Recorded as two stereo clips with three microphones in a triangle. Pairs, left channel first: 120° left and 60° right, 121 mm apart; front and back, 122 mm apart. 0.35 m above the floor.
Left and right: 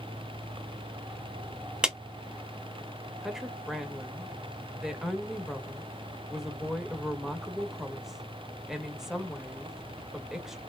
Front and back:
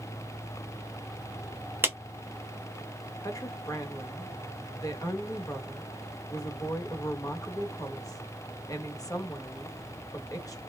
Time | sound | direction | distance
1.8 | a clap | 135° right | 0.8 m
3.2 | a woman speaking | 25° left | 0.9 m